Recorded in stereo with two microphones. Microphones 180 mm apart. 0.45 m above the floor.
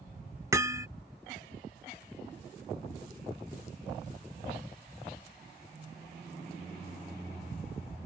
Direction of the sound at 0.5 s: 15° right (ahead or behind).